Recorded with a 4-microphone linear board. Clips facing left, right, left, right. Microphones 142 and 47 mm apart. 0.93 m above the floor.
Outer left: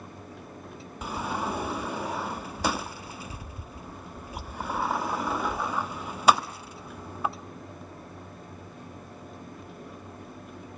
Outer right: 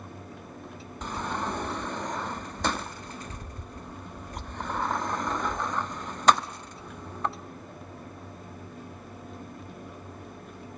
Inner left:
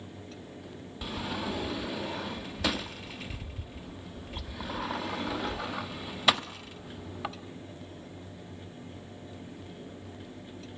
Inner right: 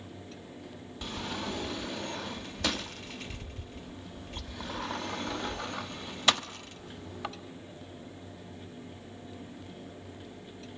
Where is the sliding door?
10° left (ahead or behind), 0.8 m.